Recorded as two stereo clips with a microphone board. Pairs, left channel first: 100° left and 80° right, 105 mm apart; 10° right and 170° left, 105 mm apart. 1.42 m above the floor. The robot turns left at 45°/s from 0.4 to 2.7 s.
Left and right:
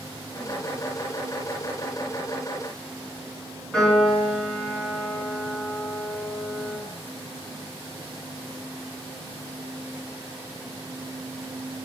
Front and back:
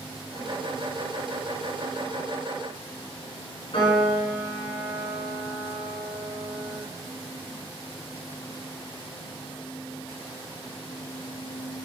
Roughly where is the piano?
Ahead.